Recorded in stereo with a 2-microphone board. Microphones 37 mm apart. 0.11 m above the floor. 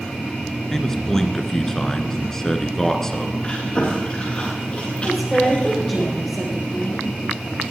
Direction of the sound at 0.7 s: 15° left (ahead or behind).